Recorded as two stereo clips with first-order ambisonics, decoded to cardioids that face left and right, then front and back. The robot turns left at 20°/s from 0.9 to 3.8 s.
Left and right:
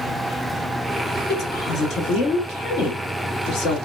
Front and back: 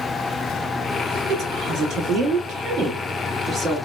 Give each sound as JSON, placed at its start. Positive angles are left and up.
{"t": 1.3, "sound": "a woman speaking", "azimuth_deg": 145, "distance_m": 1.3}